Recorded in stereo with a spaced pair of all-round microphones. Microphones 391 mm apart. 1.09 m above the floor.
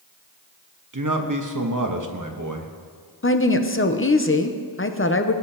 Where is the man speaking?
50° right (ahead or behind), 1.0 m.